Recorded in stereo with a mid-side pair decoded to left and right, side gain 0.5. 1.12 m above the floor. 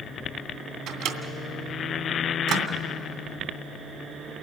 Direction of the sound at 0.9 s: 70° right.